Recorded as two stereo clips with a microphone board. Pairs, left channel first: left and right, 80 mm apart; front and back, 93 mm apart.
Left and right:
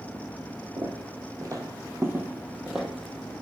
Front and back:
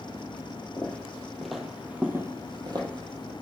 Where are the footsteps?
65° right, 0.9 m; by 3.3 s 175° left, 0.9 m.